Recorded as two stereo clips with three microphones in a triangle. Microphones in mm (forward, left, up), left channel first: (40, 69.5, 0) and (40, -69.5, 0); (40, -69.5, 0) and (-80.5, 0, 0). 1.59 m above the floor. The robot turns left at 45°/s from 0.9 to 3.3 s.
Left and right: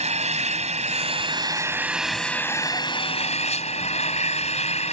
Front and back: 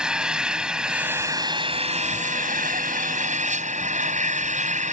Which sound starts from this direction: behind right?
An engine running, at 0.0 s.